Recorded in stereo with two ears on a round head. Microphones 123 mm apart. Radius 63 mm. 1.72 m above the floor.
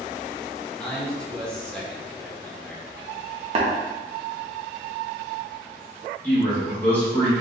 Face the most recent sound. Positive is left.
turn(degrees=10)  # may be behind; listen again after turning